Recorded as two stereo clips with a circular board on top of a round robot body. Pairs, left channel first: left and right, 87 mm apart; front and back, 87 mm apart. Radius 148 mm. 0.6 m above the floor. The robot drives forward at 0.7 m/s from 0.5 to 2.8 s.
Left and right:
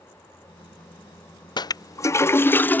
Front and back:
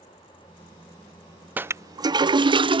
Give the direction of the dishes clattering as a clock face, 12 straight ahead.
No dishes clattering in this recording.